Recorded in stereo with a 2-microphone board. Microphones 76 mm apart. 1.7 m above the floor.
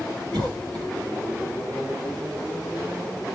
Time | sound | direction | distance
0.3 | a cough | 75° right (ahead or behind) | 2.5 m